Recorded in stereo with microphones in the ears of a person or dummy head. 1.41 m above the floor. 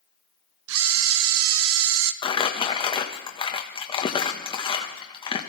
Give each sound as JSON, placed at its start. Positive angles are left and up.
{"t": 0.7, "sound": "a camera shutter", "side_deg": -75, "distance_m": 0.8}
{"t": 2.2, "sound": "crumpling", "side_deg": 20, "distance_m": 1.2}